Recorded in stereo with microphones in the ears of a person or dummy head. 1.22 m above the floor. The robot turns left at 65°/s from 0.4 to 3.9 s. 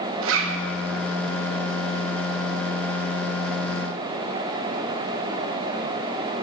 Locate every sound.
0.2 s a zipper: 80° right, 1.4 m; by 0.6 s 85° right, 1.4 m